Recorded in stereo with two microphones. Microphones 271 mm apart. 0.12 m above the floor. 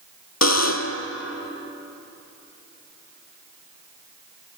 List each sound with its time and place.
0.4 s a buzzer: 70° left (ahead or behind), 0.5 m